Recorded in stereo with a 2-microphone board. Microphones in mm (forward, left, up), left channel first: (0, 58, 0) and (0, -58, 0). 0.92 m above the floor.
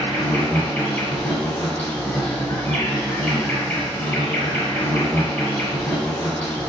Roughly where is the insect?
Centre.